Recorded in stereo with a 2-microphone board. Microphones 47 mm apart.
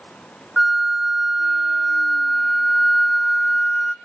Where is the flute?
Centre (ahead or behind), 0.9 m.